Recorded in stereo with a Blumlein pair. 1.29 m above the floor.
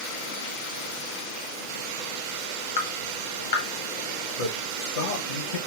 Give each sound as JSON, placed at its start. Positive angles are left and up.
{"t": 2.8, "sound": "dripping", "azimuth_deg": 60, "distance_m": 1.5}
{"t": 4.4, "sound": "a man speaking", "azimuth_deg": 55, "distance_m": 1.1}